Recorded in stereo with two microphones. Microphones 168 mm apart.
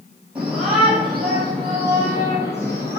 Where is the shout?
5° right (ahead or behind), 3 m; by 3.0 s 20° left (ahead or behind), 3 m.